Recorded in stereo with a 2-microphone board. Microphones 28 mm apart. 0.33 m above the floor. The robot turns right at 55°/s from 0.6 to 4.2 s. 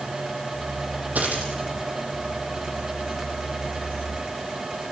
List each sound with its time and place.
1.1 s a dropped coin: 75° right (ahead or behind), 5.5 m